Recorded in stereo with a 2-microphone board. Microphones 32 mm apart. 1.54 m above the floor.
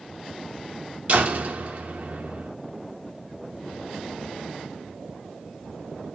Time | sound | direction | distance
1.1 | a door slam | 55° right (ahead or behind) | 4 m